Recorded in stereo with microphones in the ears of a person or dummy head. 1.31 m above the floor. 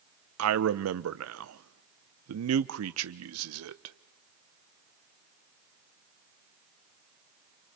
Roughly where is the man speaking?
Right.